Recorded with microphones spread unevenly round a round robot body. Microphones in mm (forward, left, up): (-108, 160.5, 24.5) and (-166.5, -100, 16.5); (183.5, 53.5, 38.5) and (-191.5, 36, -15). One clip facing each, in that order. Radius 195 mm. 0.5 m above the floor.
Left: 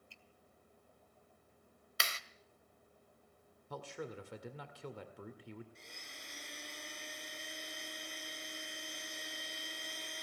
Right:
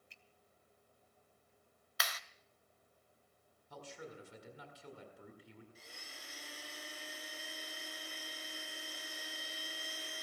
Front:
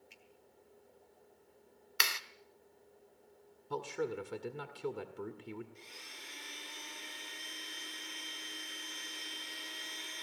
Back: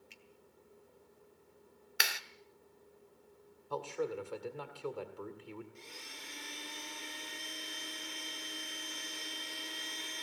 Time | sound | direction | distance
0.1 | a finger snap | 175° right | 2.5 m
2.0 | a clap | 95° left | 0.8 m
3.7 | a man speaking | 65° left | 2.0 m
5.8 | a blender | 170° left | 2 m